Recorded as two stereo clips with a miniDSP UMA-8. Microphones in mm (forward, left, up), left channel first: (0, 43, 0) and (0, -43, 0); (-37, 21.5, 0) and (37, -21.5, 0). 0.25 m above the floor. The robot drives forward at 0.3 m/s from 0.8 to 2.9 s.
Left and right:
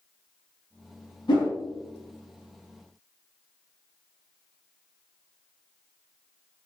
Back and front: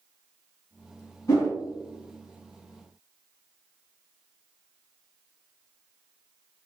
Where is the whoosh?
105° left, 1.4 m; by 1.5 s 110° left, 1.4 m.